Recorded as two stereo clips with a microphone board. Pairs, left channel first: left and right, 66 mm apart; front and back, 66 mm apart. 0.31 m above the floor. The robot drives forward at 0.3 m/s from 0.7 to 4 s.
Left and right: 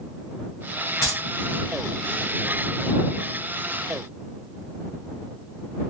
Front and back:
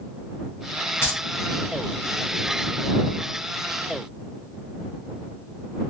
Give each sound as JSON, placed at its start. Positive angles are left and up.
{"t": 1.0, "sound": "keys jangling", "azimuth_deg": 45, "distance_m": 1.7}